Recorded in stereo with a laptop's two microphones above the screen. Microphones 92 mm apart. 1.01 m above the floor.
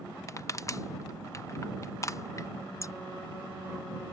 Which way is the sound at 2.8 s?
35° left (ahead or behind).